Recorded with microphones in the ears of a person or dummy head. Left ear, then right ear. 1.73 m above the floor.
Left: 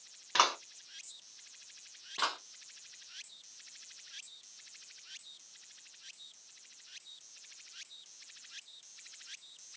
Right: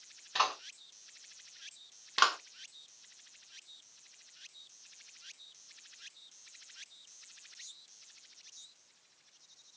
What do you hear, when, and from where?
0.3 s a clap: 45° left (ahead or behind), 1.7 m
2.2 s a clap: 45° right (ahead or behind), 0.5 m